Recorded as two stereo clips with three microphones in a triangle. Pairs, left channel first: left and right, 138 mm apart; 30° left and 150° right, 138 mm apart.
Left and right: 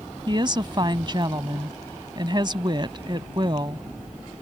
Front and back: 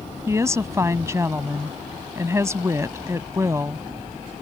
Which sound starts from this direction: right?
A woman speaking, at 0.3 s.